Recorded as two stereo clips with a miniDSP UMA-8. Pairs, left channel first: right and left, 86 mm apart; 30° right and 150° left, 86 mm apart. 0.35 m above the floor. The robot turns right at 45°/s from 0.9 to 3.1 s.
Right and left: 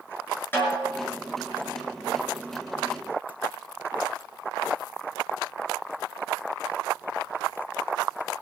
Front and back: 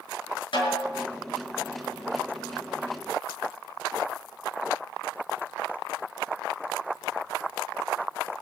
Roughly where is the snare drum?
Ahead right.